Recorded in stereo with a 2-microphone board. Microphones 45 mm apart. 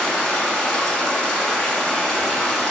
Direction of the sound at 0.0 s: 10° left (ahead or behind).